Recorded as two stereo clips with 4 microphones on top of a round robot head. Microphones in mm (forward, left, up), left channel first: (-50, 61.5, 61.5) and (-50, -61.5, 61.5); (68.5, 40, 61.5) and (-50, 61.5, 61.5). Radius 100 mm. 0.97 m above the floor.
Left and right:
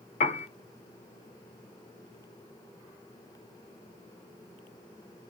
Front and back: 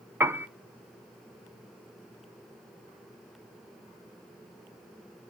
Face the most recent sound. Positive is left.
turn(degrees=100)